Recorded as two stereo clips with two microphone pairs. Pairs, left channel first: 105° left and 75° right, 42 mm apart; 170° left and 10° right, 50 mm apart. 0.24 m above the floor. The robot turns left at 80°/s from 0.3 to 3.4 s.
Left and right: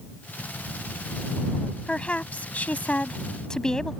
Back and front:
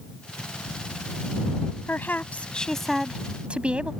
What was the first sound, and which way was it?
A woman speaking, 160° left.